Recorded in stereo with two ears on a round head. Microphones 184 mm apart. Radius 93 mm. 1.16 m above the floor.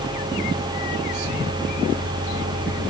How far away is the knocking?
I don't hear knocking.